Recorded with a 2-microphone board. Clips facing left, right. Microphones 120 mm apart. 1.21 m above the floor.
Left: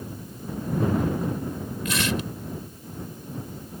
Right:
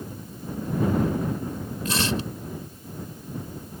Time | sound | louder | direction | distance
1.9 | tearing paper | right 1 dB | 30° right (ahead or behind) | ?